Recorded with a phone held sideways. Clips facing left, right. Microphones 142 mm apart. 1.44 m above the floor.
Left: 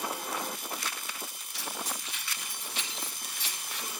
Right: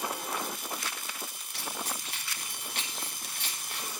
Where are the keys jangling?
65° right (ahead or behind), 9 m.